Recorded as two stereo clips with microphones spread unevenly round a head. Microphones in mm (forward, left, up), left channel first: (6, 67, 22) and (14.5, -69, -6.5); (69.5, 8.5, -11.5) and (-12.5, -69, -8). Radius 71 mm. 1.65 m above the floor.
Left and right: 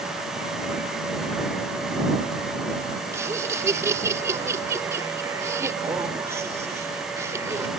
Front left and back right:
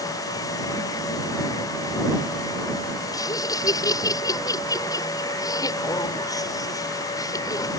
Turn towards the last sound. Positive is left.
turn(degrees=-15)